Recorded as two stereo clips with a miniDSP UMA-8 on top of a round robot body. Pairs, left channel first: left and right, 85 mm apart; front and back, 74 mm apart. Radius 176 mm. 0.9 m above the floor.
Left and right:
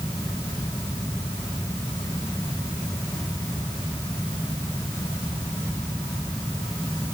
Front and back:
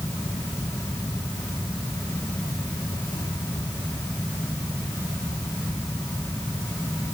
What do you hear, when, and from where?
Only background noise.